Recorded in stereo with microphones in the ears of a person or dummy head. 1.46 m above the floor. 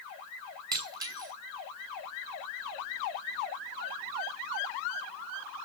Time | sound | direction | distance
0.7 | breaking glass | 25° right (ahead or behind) | 6.5 m